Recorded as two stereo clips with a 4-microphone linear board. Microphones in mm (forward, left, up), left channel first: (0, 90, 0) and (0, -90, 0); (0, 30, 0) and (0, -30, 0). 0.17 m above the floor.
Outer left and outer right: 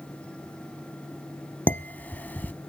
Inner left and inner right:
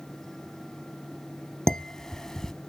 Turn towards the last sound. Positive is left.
turn(degrees=10)  # may be behind; listen again after turning